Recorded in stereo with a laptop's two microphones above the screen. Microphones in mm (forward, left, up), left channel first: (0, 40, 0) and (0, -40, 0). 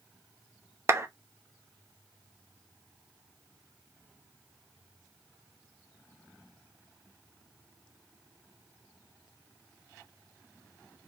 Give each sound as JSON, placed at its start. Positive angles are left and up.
{"t": 0.9, "sound": "a clap", "side_deg": -35, "distance_m": 0.5}